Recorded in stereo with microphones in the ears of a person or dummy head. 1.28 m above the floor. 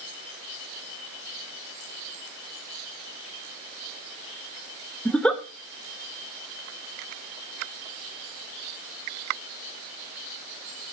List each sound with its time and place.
5.0 s a giggle: 5° left (ahead or behind), 1.1 m